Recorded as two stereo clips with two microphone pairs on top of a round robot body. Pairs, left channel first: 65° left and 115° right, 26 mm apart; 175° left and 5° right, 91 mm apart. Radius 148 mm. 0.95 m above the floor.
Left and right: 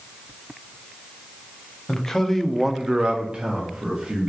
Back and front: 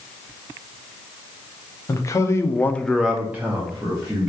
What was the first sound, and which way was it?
A man speaking, 130° left.